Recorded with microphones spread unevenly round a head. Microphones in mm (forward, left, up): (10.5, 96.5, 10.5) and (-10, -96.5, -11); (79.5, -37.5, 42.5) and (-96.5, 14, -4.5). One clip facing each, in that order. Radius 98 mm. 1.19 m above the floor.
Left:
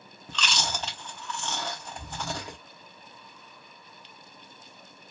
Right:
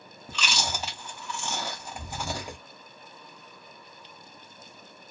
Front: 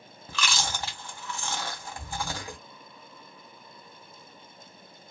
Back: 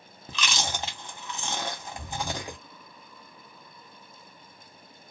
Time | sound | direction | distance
0.3 | chewing | 165° right | 0.6 m